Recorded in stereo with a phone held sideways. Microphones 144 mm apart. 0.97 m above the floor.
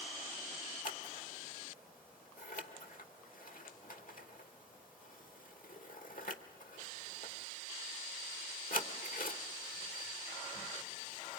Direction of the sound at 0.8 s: 75° left (ahead or behind).